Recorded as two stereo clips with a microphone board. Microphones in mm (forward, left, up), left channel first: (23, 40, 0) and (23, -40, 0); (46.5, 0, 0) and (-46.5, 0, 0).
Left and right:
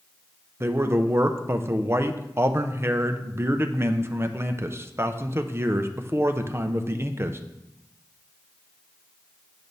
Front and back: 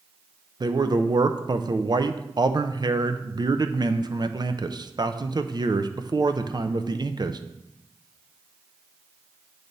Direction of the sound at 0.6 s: 145° right.